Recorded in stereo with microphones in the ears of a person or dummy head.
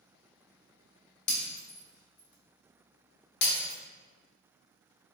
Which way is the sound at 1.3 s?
60° left (ahead or behind).